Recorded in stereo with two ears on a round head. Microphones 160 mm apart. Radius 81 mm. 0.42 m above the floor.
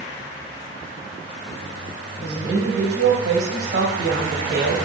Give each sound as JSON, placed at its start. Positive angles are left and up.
{"t": 2.2, "sound": "a woman speaking", "side_deg": -65, "distance_m": 2.0}